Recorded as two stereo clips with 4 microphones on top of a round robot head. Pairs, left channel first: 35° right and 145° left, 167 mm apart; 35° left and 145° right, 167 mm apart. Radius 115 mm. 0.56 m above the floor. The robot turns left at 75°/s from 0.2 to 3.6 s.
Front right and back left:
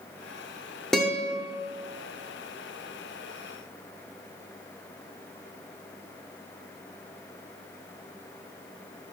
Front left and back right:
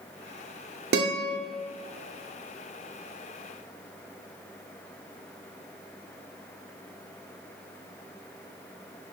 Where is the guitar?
120° right, 0.7 m; by 1.4 s 155° right, 0.7 m.